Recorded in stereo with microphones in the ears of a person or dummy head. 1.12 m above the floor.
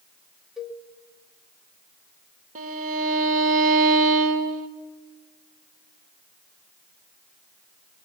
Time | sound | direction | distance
0.6 | a cowbell | 5° right (ahead or behind) | 2 m
2.5 | a violin | 45° right (ahead or behind) | 1.8 m